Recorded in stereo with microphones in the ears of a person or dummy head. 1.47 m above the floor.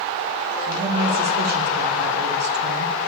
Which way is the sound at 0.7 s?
45° right (ahead or behind).